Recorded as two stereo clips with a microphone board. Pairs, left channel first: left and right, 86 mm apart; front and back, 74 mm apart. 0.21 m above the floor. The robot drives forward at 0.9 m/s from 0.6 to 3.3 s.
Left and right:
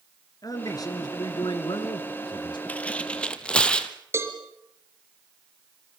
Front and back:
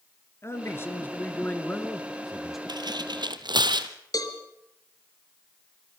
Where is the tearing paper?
160° left, 1.0 m; by 3.9 s 170° left, 1.5 m.